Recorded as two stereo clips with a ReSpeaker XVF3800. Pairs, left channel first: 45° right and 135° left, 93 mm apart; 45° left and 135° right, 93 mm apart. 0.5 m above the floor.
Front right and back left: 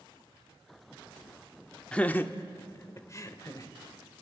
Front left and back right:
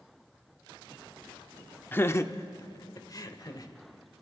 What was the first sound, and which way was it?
Laughter, 20° left.